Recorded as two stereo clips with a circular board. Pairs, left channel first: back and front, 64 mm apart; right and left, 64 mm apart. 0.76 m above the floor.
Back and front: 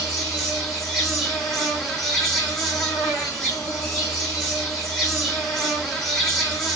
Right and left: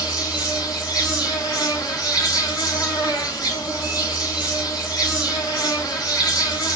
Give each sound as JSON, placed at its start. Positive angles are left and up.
{"t": 0.0, "sound": "an insect", "azimuth_deg": -100, "distance_m": 3.0}